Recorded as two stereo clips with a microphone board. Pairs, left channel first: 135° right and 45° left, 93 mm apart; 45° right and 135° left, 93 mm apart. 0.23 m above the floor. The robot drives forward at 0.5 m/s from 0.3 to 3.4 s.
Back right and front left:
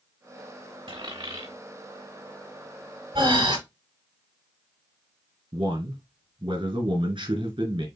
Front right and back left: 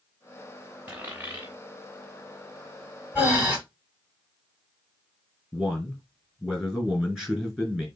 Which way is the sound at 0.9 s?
65° left.